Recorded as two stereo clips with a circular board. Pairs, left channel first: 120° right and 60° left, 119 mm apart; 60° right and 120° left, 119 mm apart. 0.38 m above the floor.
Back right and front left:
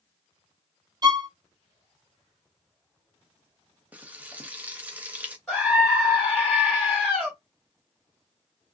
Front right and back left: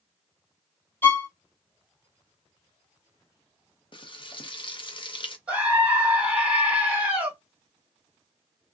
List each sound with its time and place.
1.0 s a violin: 10° left, 0.7 m
3.9 s frying: 15° right, 0.6 m
5.5 s a scream: 170° left, 1.1 m